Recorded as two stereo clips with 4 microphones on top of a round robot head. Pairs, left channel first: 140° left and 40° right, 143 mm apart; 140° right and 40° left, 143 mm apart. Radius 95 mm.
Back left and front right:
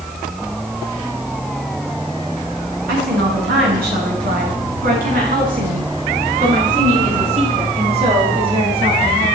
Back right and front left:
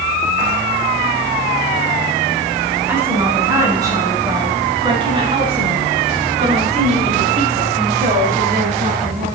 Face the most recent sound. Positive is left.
turn(degrees=15)